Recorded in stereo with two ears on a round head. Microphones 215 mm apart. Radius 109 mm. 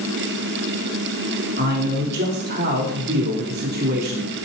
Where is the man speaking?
40° right (ahead or behind), 3.5 m.